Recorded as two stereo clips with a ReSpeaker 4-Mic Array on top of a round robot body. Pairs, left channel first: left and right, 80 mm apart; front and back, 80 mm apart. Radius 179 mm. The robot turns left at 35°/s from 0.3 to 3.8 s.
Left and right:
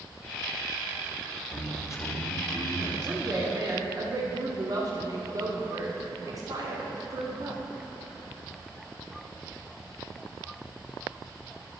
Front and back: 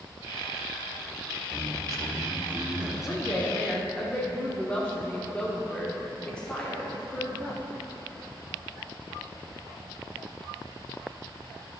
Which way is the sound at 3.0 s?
50° right.